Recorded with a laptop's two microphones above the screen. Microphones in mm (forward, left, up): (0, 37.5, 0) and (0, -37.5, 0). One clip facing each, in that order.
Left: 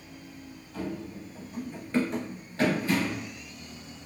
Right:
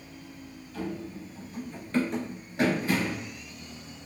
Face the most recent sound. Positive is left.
turn(degrees=-30)  # may be behind; listen again after turning